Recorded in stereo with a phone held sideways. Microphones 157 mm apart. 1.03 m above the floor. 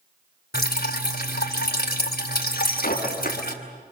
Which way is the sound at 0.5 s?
80° left.